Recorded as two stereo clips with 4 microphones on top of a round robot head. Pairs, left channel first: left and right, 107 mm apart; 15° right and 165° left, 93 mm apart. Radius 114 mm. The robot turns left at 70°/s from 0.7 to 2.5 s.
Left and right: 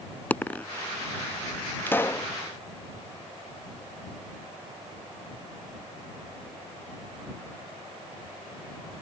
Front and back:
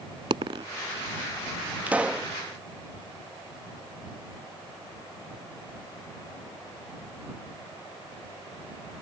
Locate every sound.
0.3 s a dropped coin: 160° left
1.9 s a pop: 125° left; by 2.3 s 95° left